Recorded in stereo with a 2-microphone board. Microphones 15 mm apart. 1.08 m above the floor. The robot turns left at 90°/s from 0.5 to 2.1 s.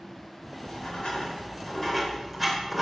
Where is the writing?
40° left (ahead or behind), 4 m; by 2.8 s 5° right (ahead or behind), 4 m.